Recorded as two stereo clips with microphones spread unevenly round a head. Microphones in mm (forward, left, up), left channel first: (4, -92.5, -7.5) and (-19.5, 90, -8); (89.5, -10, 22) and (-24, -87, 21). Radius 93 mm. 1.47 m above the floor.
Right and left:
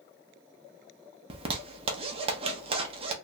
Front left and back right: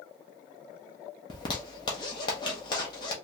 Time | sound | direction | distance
1.3 | a zipper | 70° left | 0.7 m